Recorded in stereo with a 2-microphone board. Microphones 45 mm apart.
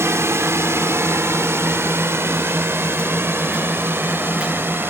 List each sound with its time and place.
0.0 s a drone: 75° right (ahead or behind); by 4.9 s 55° right (ahead or behind)